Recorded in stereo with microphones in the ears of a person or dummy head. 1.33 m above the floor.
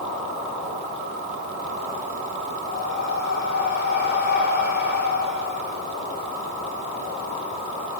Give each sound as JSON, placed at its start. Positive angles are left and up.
{"t": 2.7, "sound": "breathing", "side_deg": 45, "distance_m": 3.5}